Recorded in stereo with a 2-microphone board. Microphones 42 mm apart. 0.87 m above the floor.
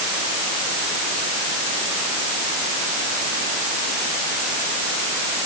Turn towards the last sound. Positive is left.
No sound to turn to.